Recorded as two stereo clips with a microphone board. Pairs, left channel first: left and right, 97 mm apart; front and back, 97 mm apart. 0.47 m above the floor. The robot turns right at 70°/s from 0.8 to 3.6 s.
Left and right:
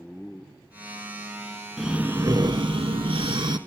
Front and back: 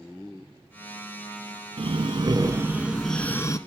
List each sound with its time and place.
1.8 s breathing: 175° right, 0.9 m; by 3.6 s 50° right, 0.9 m